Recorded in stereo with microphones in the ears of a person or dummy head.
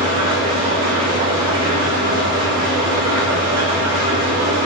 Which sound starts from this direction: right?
An engine running, at 0.0 s.